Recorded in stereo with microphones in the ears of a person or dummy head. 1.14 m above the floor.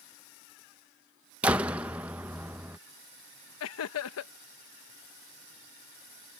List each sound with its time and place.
1.4 s a door slam: 10° right (ahead or behind)
3.6 s laughter: 70° left (ahead or behind)